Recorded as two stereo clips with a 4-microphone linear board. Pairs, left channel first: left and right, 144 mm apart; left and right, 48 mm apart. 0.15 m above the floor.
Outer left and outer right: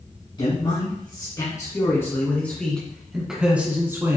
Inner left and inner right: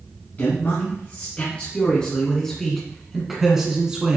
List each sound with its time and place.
0.4 s a man speaking: 35° left (ahead or behind), 2.5 m; by 4.2 s 20° right (ahead or behind), 1.9 m